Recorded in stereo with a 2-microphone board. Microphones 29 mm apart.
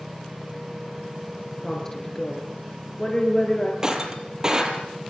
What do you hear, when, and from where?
1.6 s a woman speaking: 15° left (ahead or behind), 7.5 m; by 3.7 s 25° left (ahead or behind), 9 m
3.8 s breaking glass: 20° right (ahead or behind), 4.5 m